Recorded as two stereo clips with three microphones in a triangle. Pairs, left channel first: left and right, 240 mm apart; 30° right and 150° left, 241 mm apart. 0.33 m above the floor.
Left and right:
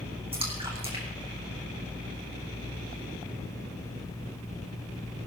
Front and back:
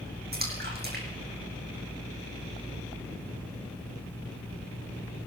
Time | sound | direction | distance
0.3 | a splash | 160° right | 3.5 m